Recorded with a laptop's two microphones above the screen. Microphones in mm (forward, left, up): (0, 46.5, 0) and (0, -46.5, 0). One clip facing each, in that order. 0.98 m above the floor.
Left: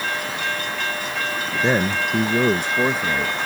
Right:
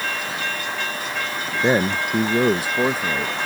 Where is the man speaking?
15° right (ahead or behind); by 3.3 s 5° right (ahead or behind).